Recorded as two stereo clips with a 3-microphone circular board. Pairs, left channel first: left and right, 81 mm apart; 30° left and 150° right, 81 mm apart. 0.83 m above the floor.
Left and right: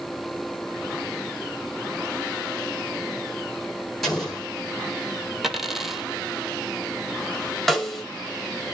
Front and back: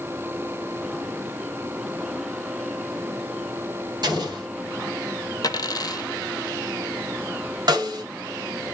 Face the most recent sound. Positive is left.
turn(degrees=175)